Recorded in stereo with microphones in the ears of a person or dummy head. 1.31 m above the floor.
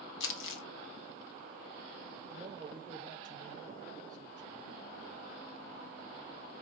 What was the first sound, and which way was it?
Crumpling, 75° left (ahead or behind).